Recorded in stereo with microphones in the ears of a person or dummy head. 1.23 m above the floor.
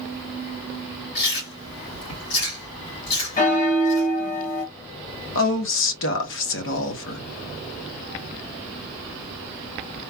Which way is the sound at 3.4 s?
40° left (ahead or behind).